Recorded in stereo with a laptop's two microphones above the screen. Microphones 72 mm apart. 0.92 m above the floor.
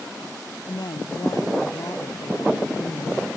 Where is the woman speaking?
70° left (ahead or behind).